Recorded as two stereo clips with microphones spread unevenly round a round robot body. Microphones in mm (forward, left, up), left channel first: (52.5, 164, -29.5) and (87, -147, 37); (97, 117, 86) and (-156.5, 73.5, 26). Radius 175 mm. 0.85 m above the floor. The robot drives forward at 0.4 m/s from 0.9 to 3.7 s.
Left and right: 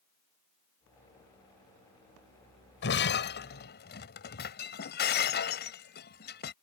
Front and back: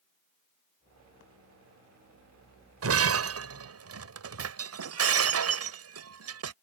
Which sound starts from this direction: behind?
Breaking glass, at 2.8 s.